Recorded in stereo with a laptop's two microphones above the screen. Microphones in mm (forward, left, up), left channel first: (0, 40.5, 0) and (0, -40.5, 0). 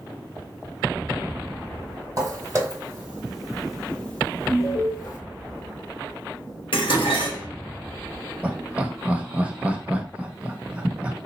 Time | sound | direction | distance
2.2 | footsteps | 40° right (ahead or behind) | 1.4 m
4.5 | an alarm | 30° left (ahead or behind) | 1.3 m
6.7 | dishes clattering | 75° left (ahead or behind) | 1.2 m
8.4 | laughter | 15° right (ahead or behind) | 0.9 m